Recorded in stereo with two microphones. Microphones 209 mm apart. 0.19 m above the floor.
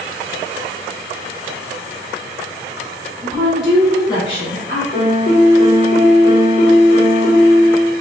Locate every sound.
3.2 s a woman speaking: 20° right (ahead or behind), 1.3 m; by 4.8 s 40° left (ahead or behind), 1.7 m
4.9 s a piano: 40° left (ahead or behind), 1.0 m